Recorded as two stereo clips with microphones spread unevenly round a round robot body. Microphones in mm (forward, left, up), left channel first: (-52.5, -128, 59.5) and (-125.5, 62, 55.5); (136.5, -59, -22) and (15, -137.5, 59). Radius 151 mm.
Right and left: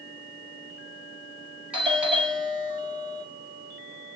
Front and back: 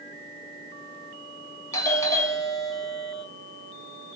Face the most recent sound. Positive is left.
turn(degrees=30)